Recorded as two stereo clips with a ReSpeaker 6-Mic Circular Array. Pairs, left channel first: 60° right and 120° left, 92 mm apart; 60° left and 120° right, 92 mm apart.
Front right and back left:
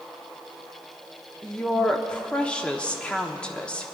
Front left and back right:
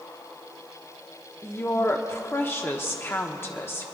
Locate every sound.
1.4 s a woman speaking: 10° left, 1.0 m